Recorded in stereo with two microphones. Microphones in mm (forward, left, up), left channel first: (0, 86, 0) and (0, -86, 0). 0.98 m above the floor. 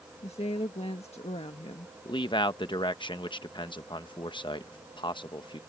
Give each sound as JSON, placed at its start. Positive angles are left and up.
{"t": 0.2, "sound": "a woman speaking", "side_deg": 40}
{"t": 2.0, "sound": "a man speaking", "side_deg": 30}